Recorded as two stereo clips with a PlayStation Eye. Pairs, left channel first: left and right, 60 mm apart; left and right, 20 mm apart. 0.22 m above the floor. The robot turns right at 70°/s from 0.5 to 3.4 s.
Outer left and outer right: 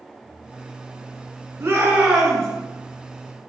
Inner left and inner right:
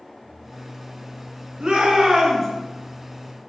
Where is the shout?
50° right, 2.5 m; by 2.5 s 15° left, 2.5 m.